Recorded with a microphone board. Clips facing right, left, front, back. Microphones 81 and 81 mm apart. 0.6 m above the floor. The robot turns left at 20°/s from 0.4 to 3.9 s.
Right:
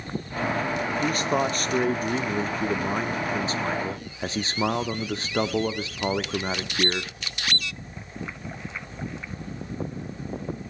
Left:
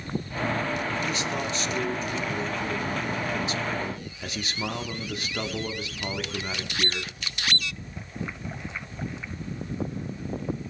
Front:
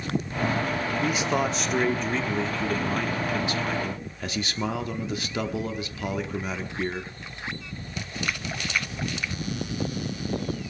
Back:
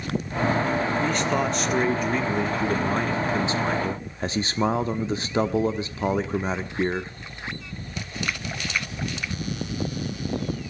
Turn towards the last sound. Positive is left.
turn(degrees=-135)